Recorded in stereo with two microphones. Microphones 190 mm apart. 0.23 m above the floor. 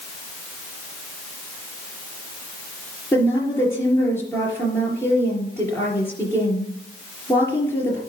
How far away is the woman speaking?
About 4 m.